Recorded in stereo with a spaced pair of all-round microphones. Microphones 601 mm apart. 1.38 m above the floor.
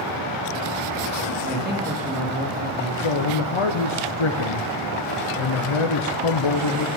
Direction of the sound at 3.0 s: 55° left (ahead or behind).